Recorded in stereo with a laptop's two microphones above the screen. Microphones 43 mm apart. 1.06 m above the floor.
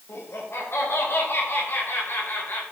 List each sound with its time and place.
0.1 s laughter: 75° left (ahead or behind), 5.5 m; by 2.6 s 50° left (ahead or behind), 4.5 m